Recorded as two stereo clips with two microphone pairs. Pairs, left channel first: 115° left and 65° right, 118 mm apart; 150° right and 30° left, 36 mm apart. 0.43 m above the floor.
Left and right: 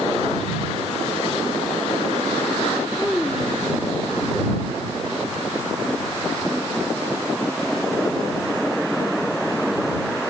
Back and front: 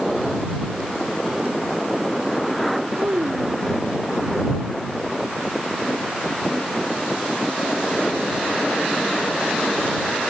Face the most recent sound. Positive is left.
turn(degrees=25)